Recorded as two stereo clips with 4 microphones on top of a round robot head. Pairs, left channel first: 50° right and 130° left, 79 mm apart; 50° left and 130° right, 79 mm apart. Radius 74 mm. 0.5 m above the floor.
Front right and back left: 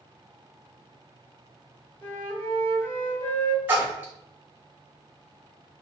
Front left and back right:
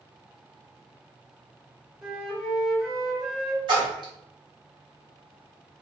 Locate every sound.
2.0 s a flute: 70° right, 1.2 m
3.7 s a splash: 155° right, 0.8 m